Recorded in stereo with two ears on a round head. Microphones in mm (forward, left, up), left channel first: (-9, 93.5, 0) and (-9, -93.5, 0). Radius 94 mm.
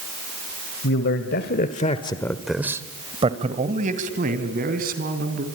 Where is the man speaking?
65° left (ahead or behind), 1.8 m; by 5.4 s 55° right (ahead or behind), 4 m.